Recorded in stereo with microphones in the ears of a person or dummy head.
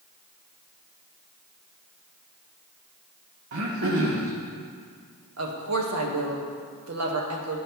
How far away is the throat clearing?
About 0.9 m.